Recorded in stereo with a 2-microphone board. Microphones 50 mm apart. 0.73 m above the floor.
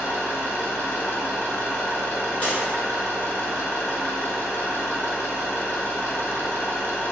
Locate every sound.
0.0 s an engine running: 55° left (ahead or behind), 0.8 m
2.4 s breaking glass: 30° left (ahead or behind), 1.4 m